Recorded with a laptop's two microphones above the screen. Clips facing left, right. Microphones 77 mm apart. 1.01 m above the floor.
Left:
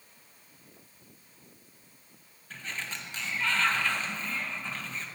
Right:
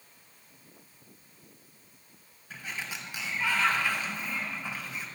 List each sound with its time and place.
2.5 s a sliding door: 10° right (ahead or behind), 0.8 m